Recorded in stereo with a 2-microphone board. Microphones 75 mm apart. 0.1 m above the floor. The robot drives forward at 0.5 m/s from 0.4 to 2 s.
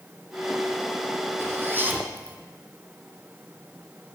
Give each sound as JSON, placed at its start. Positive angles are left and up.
{"t": 1.4, "sound": "a zipper", "side_deg": -35, "distance_m": 1.1}